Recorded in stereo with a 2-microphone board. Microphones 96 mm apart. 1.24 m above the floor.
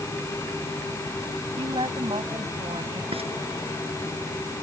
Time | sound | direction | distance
1.6 | a woman speaking | 65° right (ahead or behind) | ?
3.1 | frying | 85° right | ?